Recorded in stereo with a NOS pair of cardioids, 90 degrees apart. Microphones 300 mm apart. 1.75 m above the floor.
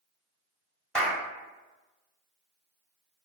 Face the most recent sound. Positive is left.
turn(degrees=0)